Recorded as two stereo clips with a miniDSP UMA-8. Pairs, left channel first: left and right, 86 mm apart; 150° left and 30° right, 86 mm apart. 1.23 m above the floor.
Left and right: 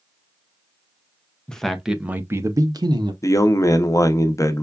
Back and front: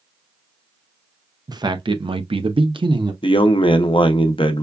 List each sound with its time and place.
1.5 s a man speaking: 10° left, 0.7 m; by 3.1 s 60° right, 0.8 m
3.2 s a man speaking: 140° left, 0.6 m